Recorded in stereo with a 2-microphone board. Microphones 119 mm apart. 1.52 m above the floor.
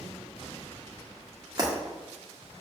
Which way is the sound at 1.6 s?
35° right (ahead or behind).